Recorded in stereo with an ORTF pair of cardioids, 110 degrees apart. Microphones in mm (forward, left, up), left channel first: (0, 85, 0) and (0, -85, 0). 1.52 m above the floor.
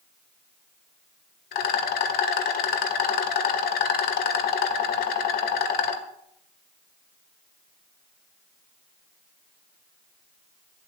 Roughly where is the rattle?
Ahead left.